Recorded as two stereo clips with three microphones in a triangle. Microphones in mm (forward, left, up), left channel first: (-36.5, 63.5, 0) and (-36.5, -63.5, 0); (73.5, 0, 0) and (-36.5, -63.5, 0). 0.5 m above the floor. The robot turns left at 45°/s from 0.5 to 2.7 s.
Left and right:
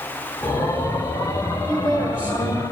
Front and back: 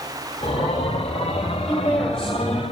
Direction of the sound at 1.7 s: 30° right.